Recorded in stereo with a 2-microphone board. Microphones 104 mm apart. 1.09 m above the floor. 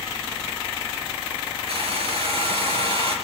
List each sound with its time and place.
1.7 s a hair dryer: 70° right (ahead or behind), 3.5 m